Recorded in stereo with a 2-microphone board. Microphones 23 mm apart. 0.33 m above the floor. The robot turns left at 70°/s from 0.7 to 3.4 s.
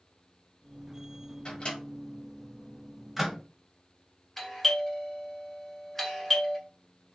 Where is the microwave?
40° left (ahead or behind), 1.4 m; by 3.4 s 10° right (ahead or behind), 1.4 m.